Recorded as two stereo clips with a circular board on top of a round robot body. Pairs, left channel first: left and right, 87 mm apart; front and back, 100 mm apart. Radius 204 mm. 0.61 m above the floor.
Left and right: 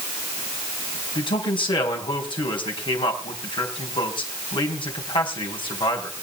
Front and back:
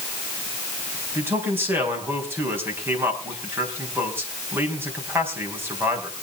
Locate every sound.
1.1 s a man speaking: 115° left, 5 m